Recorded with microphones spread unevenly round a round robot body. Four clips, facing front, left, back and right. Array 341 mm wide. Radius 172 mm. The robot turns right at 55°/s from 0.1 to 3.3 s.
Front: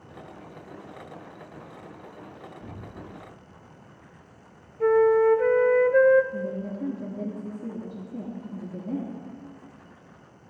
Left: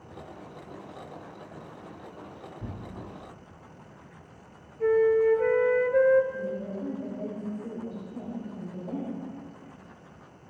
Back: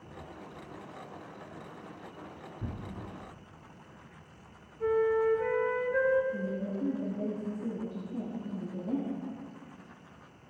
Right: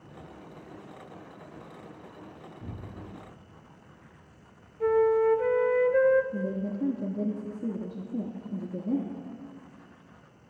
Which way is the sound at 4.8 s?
10° left.